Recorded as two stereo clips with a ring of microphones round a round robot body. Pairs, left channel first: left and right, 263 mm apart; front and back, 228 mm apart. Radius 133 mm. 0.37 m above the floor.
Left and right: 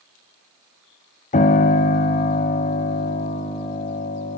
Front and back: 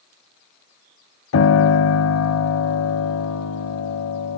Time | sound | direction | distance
1.3 | a piano | 25° left | 1.4 m